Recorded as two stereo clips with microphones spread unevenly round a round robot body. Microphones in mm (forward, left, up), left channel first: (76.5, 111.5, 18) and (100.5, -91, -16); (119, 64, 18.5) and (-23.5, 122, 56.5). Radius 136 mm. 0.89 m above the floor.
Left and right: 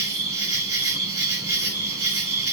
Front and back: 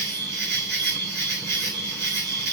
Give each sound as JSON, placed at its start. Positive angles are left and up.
{"t": 0.0, "sound": "an insect", "azimuth_deg": 165, "distance_m": 7.5}